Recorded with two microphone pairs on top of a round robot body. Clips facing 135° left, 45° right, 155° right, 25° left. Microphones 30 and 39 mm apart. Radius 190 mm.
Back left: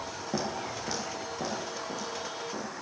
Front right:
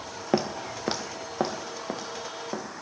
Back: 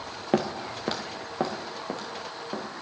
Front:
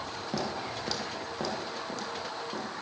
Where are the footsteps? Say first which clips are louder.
Front right 6 dB, back 8 dB; 100° right, 0.8 m; by 2.6 s 90° right, 3 m.